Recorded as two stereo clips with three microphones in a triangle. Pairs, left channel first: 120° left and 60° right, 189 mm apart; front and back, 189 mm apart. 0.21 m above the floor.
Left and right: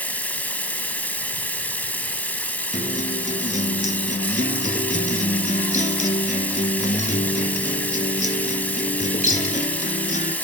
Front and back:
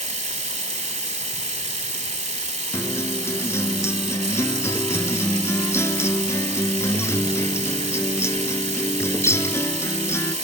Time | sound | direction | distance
0.0 | running water | 165° right | 0.9 m
2.7 | a guitar | 75° left | 0.8 m